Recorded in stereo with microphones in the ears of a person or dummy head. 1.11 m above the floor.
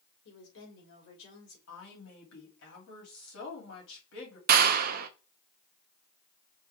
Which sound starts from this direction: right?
A clap, at 4.5 s.